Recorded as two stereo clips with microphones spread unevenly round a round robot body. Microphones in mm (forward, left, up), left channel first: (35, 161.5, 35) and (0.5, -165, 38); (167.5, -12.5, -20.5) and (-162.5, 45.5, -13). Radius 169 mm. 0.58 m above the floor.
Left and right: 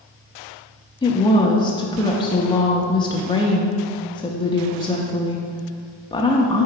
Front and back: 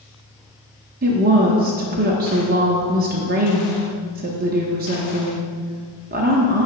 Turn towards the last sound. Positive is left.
turn(degrees=145)